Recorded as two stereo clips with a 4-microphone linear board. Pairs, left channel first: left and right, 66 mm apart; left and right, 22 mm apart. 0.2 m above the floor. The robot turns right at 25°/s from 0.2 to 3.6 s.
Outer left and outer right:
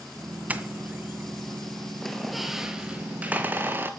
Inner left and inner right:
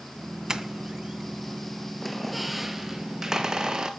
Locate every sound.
0.5 s a doorbell: 25° right (ahead or behind), 1.7 m; by 1.6 s 30° right (ahead or behind), 1.7 m
2.0 s a squeak: 175° left, 2 m; by 3.9 s 145° right, 2 m